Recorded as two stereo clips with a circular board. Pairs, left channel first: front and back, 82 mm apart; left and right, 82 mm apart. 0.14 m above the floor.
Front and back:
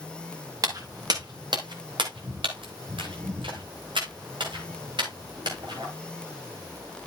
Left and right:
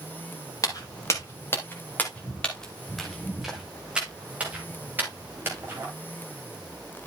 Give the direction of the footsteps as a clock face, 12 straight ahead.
7 o'clock.